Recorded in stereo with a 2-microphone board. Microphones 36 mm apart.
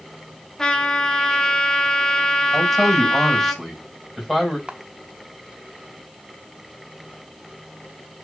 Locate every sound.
0.6 s a trumpet: 20° left (ahead or behind), 1.6 m
2.5 s a man speaking: 5° left (ahead or behind), 4 m
4.7 s a camera shutter: 25° right (ahead or behind), 0.9 m